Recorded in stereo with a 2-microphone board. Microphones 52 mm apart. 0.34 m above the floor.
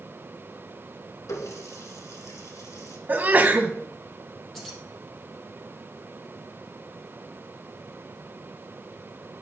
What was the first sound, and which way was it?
A running tap, 75° left (ahead or behind).